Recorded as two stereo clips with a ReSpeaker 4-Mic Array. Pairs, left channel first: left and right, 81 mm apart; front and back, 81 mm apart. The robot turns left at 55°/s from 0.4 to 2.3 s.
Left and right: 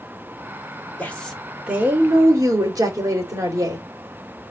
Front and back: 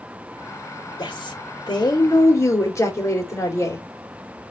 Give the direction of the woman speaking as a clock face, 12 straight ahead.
11 o'clock.